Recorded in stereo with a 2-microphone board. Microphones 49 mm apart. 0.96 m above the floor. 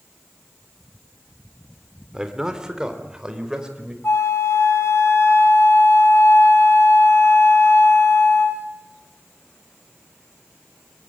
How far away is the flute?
About 2.5 m.